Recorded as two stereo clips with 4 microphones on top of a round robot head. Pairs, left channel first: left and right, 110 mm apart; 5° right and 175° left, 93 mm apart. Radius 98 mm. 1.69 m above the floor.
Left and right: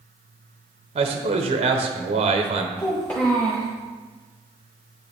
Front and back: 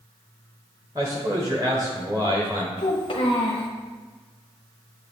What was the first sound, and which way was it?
A man speaking, 120° right.